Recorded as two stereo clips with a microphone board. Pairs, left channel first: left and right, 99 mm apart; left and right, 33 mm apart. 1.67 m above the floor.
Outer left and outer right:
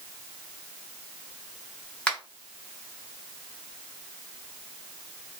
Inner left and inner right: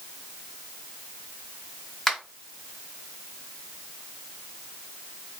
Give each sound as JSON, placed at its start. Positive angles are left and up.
{"t": 2.1, "sound": "a finger snap", "side_deg": 10, "distance_m": 1.5}